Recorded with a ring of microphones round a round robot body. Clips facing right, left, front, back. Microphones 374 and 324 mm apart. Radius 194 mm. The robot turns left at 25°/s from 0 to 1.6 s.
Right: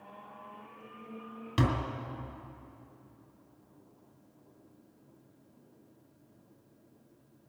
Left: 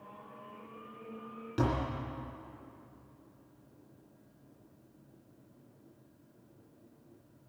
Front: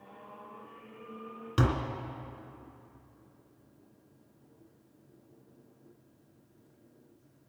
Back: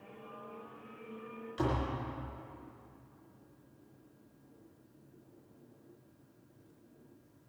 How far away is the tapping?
About 2 m.